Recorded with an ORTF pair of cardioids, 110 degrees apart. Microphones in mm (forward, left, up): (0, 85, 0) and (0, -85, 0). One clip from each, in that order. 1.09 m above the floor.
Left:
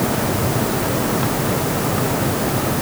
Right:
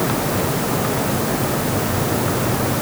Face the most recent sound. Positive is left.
No sound to turn to.